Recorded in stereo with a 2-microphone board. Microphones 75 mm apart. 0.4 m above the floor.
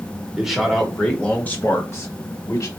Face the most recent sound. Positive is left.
turn(degrees=50)  # may be behind; listen again after turning